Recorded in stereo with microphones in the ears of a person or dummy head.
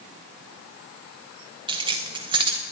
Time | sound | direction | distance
1.7 | keys jangling | 20° right (ahead or behind) | 0.9 m